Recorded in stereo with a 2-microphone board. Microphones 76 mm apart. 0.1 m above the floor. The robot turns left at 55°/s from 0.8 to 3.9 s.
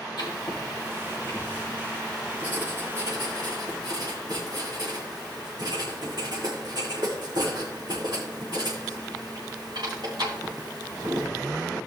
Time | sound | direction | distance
0.2 | writing | 70° left (ahead or behind) | 5.5 m